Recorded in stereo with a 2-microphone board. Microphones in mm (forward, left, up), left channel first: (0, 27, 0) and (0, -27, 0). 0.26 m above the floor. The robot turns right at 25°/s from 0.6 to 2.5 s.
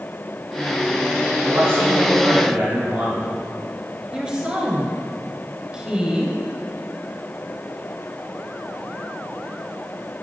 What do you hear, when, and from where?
1.4 s a man speaking: 60° right (ahead or behind), 2.0 m; by 3.3 s 45° right (ahead or behind), 2.0 m
4.1 s a woman speaking: 20° right (ahead or behind), 1.2 m